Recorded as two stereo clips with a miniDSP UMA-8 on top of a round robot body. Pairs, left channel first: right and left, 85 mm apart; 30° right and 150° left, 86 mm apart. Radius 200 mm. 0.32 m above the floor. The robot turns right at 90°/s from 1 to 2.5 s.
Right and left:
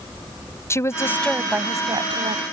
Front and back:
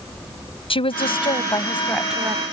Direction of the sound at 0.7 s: 30° right.